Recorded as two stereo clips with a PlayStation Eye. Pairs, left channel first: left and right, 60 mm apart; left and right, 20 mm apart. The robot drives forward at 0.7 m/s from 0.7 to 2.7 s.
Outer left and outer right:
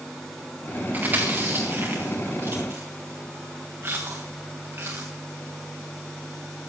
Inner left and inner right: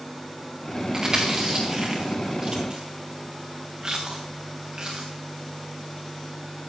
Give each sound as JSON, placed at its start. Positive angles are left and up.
{"t": 0.9, "sound": "chewing", "side_deg": -30, "distance_m": 4.5}